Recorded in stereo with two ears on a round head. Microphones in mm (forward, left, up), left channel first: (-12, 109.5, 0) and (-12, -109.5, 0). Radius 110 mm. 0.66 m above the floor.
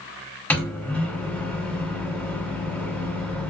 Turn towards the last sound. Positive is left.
turn(degrees=5)  # may be behind; listen again after turning